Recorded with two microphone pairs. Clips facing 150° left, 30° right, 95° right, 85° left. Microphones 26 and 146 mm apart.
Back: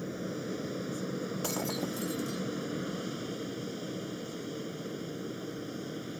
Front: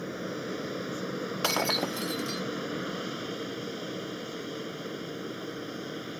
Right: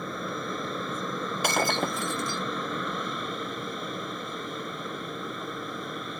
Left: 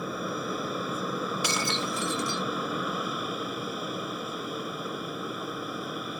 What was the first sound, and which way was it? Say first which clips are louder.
An aircraft: front 2 dB, left 1 dB; 5° left.